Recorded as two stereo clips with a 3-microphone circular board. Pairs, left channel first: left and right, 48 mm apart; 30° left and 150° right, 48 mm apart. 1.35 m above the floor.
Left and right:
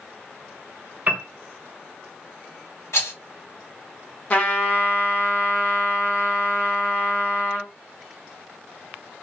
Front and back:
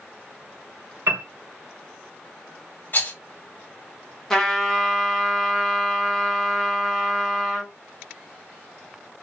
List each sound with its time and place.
1.1 s a piano: 145° right, 0.8 m
2.9 s a rattle: 75° left, 1.4 m
4.3 s a trumpet: 95° left, 1.0 m